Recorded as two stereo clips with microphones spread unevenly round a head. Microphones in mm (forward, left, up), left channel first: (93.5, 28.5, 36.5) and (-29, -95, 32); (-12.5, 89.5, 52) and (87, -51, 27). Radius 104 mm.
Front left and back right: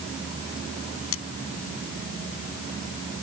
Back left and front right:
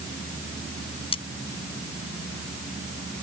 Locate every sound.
1.1 s cutlery clinking: 65° left